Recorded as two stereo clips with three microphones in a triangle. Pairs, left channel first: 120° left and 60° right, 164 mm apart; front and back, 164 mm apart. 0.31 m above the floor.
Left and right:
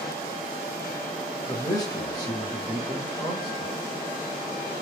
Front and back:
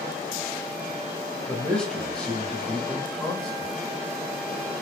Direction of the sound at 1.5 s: 80° left.